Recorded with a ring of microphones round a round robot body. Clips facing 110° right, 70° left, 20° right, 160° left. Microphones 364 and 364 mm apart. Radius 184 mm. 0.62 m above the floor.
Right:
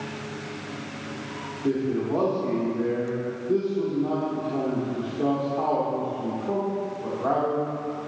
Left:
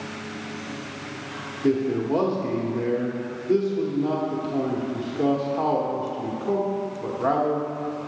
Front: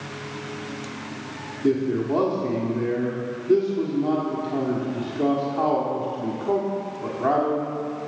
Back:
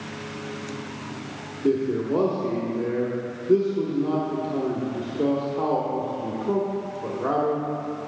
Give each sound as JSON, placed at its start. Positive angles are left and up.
{"t": 1.6, "sound": "a man speaking", "azimuth_deg": 40, "distance_m": 1.4}